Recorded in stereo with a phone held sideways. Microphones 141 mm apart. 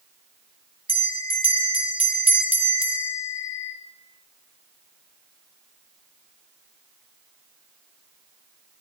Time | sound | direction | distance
0.9 | a bell | 45° right (ahead or behind) | 1.9 m